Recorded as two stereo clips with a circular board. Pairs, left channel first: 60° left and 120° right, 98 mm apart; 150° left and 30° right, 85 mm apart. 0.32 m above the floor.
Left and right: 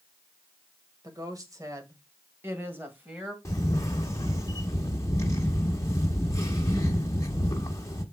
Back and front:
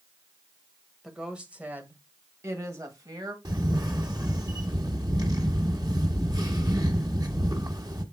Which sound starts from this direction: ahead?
A camera shutter, at 3.5 s.